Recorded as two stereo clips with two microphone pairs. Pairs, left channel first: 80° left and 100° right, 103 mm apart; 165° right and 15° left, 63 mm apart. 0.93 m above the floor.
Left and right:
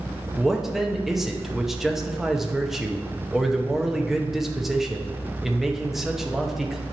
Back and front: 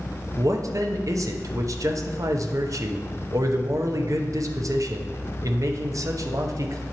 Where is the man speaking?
10° right, 0.7 m.